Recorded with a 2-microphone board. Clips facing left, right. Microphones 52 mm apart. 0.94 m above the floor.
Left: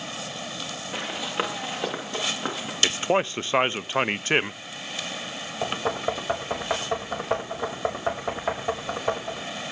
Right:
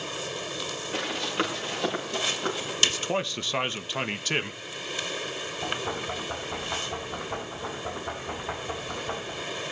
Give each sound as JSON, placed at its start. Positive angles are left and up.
{"t": 0.9, "sound": "running footsteps", "side_deg": 10, "distance_m": 7.0}
{"t": 2.8, "sound": "a man speaking", "side_deg": 35, "distance_m": 0.8}
{"t": 5.6, "sound": "knocking", "side_deg": 75, "distance_m": 4.5}